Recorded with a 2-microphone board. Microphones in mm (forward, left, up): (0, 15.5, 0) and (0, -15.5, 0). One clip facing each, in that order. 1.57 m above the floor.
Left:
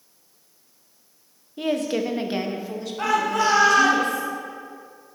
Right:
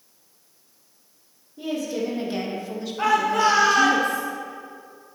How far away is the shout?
About 0.8 m.